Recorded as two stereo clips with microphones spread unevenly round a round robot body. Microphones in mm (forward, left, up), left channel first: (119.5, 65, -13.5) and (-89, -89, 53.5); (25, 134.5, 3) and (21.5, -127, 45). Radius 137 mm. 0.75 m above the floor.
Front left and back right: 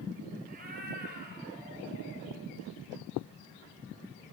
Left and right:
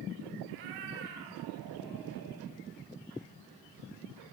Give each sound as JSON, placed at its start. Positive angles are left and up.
{"t": 0.5, "sound": "a cat meowing", "azimuth_deg": -85, "distance_m": 5.0}